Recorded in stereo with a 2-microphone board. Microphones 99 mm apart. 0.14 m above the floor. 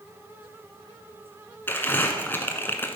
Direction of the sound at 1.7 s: 20° left (ahead or behind).